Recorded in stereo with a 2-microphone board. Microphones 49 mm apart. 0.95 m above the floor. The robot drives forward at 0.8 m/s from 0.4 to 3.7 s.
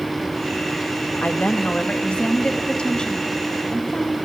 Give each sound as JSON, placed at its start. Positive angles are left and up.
{"t": 1.2, "sound": "a woman speaking", "side_deg": 30, "distance_m": 1.4}